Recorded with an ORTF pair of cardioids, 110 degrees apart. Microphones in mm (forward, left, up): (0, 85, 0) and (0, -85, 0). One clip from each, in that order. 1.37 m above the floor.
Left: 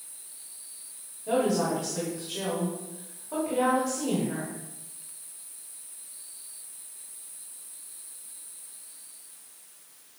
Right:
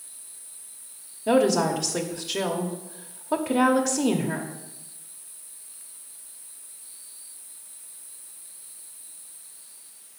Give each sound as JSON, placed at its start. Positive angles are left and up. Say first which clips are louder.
{"t": 1.3, "sound": "a woman speaking", "louder": "right 5 dB", "azimuth_deg": -65, "distance_m": 0.9}